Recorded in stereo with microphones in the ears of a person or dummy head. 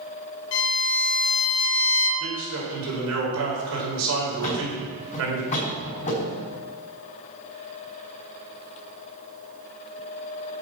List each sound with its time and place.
0.5 s a violin: 65° left (ahead or behind), 1.8 m
2.2 s a man speaking: 80° right, 4 m
4.4 s a thud: 35° left (ahead or behind), 3.5 m